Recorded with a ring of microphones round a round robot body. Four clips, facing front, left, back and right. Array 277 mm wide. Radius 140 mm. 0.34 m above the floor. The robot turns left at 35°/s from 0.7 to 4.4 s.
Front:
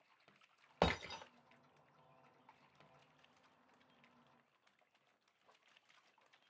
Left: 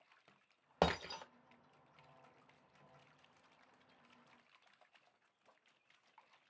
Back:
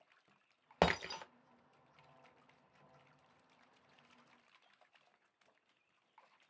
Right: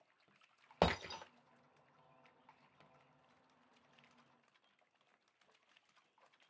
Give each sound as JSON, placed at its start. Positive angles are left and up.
{"t": 0.8, "sound": "breaking glass", "azimuth_deg": -170, "distance_m": 0.6}